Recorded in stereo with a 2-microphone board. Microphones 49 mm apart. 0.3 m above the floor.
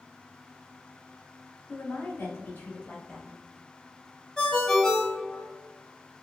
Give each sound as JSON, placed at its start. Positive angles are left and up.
{"t": 1.7, "sound": "a woman speaking", "side_deg": 55, "distance_m": 1.7}
{"t": 4.4, "sound": "a ringtone", "side_deg": 10, "distance_m": 0.9}